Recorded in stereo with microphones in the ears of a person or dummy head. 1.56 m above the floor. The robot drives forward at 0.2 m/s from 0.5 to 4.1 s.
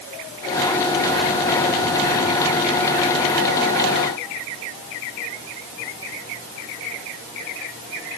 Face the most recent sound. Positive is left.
No sound to turn to.